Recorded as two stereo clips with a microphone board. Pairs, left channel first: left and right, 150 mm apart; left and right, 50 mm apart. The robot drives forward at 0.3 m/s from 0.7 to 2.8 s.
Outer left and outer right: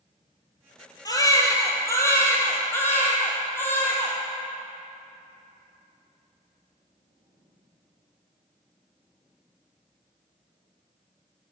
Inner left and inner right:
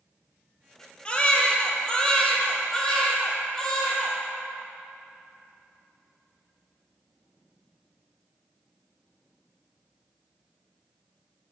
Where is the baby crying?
25° left (ahead or behind), 0.7 m; by 4.2 s 15° left (ahead or behind), 1.2 m.